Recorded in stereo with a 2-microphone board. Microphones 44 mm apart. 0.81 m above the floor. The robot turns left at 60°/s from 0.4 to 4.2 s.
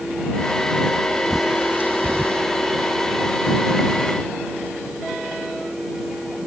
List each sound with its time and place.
1.3 s a bird: 5° right (ahead or behind); by 2.4 s 70° right (ahead or behind)